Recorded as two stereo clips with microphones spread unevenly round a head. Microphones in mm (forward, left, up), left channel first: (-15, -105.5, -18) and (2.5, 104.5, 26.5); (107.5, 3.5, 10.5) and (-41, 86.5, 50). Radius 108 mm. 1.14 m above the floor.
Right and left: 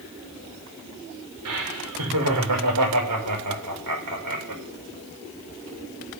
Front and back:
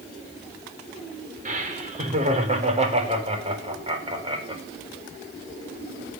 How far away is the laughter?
About 5 m.